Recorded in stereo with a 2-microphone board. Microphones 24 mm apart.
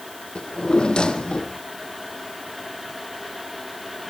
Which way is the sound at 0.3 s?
35° left (ahead or behind).